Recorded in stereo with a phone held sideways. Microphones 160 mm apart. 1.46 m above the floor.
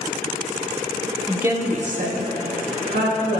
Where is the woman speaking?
Centre (ahead or behind), 0.5 m; by 3.4 s 80° right, 1.7 m.